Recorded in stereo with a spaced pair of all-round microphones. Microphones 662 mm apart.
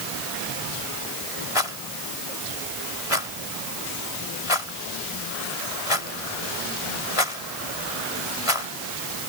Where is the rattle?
55° left (ahead or behind).